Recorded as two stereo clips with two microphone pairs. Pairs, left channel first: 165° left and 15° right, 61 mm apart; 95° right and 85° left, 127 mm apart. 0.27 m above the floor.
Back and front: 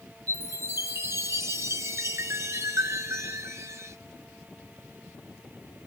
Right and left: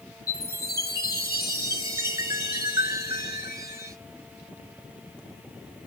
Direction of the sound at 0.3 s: 20° left.